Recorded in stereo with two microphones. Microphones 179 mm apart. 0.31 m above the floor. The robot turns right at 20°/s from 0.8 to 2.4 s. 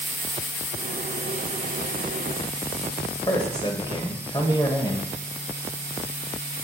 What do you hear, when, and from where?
3.3 s a man speaking: 25° left (ahead or behind), 1.2 m